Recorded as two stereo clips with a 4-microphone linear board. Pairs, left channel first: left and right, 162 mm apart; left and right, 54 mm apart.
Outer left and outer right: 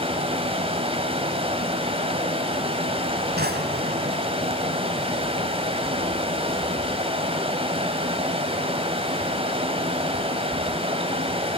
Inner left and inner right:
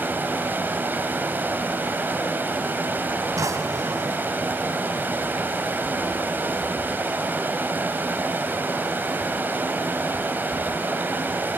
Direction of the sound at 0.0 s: 35° right (ahead or behind).